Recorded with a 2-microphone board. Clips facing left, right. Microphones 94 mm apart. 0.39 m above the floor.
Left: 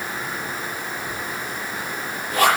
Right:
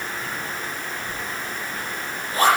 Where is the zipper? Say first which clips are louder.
Left 1 dB; 85° left, 5.5 m.